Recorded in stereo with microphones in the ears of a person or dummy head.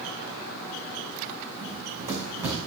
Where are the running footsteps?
15° right (ahead or behind), 3.5 m.